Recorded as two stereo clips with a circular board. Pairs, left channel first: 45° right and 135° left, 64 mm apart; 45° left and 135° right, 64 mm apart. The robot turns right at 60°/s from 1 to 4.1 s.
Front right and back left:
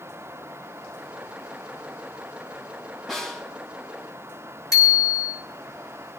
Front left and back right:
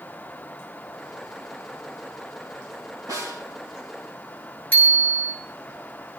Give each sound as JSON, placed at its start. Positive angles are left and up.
{"t": 3.1, "sound": "a snare drum", "azimuth_deg": -135, "distance_m": 3.5}
{"t": 4.7, "sound": "a bicycle bell", "azimuth_deg": -20, "distance_m": 6.5}